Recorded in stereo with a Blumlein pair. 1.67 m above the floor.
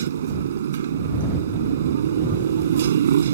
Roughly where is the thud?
No thud in this recording.